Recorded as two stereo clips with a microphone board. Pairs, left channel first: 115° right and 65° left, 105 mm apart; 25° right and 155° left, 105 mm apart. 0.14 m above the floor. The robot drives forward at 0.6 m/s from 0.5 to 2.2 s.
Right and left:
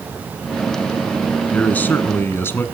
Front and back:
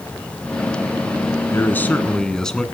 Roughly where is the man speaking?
Ahead right.